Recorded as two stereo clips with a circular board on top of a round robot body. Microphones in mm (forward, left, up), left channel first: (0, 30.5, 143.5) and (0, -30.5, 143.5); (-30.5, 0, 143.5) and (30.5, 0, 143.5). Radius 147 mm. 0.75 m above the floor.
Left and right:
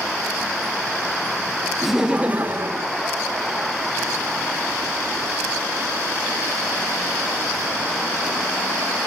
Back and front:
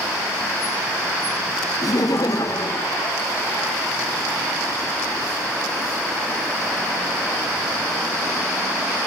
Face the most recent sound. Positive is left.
turn(degrees=-125)